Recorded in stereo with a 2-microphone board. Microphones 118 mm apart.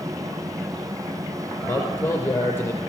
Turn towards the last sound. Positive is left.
turn(degrees=20)  # may be behind; listen again after turning